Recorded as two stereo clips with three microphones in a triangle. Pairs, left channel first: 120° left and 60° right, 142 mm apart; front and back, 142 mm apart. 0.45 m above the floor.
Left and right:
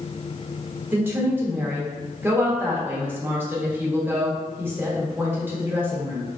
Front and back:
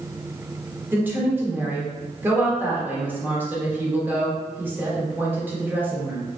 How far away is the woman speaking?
About 0.8 m.